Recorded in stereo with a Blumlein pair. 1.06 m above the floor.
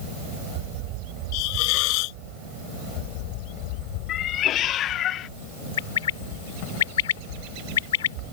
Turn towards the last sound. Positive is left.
turn(degrees=60)